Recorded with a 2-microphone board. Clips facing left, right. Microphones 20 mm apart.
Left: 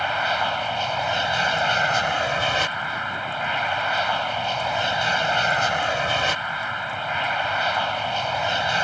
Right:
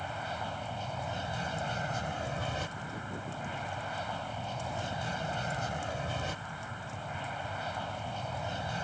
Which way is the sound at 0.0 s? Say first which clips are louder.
Left 15 dB; 60° left (ahead or behind).